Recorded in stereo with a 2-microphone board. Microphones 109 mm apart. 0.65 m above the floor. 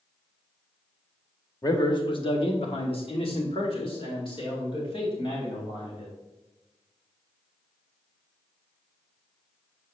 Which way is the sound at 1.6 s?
35° left (ahead or behind).